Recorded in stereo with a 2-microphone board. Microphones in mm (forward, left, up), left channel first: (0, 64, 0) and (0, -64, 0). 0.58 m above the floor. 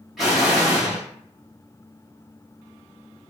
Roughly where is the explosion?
Centre.